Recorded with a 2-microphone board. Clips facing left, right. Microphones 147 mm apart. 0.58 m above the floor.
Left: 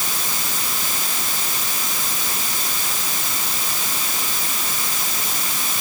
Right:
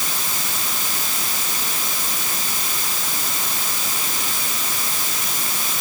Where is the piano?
I don't hear a piano.